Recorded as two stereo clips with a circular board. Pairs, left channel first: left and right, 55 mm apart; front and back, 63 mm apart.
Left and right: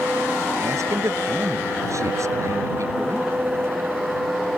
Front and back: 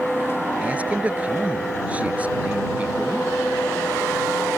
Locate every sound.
0.6 s a man speaking: 110° right